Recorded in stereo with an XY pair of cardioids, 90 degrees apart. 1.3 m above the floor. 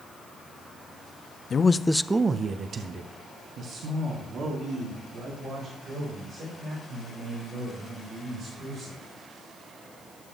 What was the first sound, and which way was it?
A man speaking, 50° left.